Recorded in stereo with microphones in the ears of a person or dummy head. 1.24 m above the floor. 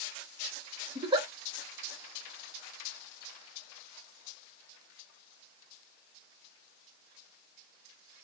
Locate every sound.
0.9 s a giggle: 25° right (ahead or behind), 1.0 m